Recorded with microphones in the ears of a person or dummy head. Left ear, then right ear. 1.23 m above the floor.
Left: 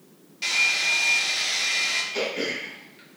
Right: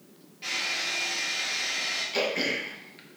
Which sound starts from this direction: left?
A hair dryer, at 0.4 s.